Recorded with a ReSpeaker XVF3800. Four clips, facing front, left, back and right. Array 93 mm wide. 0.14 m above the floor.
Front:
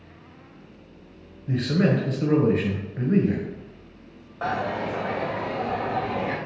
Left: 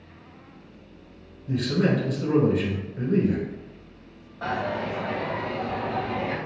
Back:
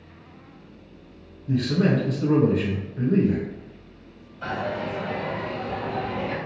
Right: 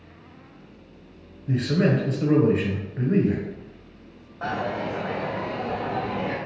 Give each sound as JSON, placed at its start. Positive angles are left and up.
{"t": 1.5, "sound": "a man speaking", "azimuth_deg": -40, "distance_m": 1.7}
{"t": 4.4, "sound": "a dropped coin", "azimuth_deg": -5, "distance_m": 2.0}